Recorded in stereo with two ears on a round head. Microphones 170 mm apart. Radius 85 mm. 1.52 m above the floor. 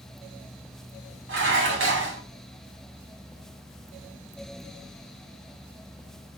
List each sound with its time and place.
1.3 s dishes clattering: 70° right (ahead or behind), 3 m